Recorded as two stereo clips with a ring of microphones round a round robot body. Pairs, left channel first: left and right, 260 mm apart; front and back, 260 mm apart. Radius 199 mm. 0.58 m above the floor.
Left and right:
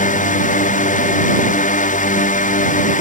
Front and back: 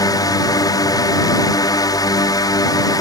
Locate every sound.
0.0 s a drone: 65° left